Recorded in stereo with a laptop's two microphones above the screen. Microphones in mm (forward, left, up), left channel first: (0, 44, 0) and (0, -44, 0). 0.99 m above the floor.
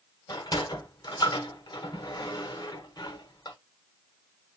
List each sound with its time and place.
0.3 s a sliding door: 50° left (ahead or behind), 1.0 m